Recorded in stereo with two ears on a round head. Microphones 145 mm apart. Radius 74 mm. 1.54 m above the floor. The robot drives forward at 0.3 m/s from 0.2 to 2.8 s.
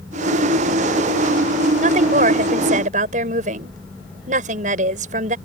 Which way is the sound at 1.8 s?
45° right (ahead or behind).